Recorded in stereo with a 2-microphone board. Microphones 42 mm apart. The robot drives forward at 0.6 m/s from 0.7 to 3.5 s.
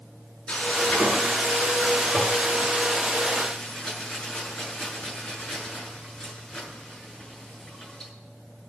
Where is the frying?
30° left (ahead or behind), 5 m; by 8.1 s 20° left (ahead or behind), 6.5 m.